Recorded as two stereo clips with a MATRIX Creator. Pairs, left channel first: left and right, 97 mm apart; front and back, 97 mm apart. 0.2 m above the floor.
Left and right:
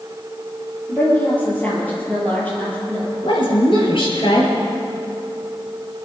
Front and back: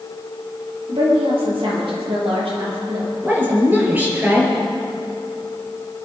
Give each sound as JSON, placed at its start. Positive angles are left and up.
{"t": 0.9, "sound": "a woman speaking", "azimuth_deg": 160, "distance_m": 6.0}
{"t": 3.2, "sound": "a woman speaking", "azimuth_deg": 110, "distance_m": 4.5}